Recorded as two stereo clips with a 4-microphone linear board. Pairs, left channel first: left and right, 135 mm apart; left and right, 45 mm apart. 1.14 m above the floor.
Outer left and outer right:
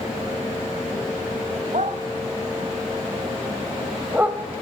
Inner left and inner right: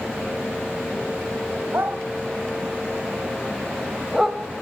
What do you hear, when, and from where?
1.7 s a dog barking: 65° right (ahead or behind), 1.8 m; by 4.4 s 10° right (ahead or behind), 1.6 m